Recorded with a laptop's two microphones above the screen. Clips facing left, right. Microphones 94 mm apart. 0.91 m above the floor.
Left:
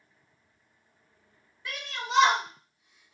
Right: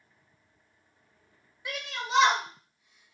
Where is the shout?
15° right (ahead or behind), 1.0 m; by 3.1 s 25° left (ahead or behind), 1.0 m.